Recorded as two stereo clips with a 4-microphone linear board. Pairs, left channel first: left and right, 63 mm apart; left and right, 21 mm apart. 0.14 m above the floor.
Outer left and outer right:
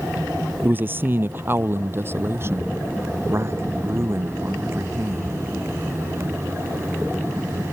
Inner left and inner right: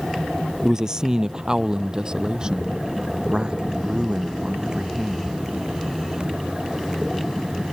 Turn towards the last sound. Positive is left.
turn(degrees=-40)  # may be behind; listen again after turning